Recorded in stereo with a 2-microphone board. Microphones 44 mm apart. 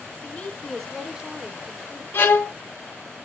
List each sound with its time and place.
0.2 s a woman speaking: 40° left (ahead or behind), 1.2 m; by 2.0 s 55° right (ahead or behind), 1.4 m
2.1 s a violin: 55° left (ahead or behind), 0.6 m